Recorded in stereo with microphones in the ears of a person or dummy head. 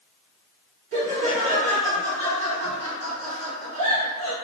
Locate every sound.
0.9 s laughter: 55° right (ahead or behind), 1.9 m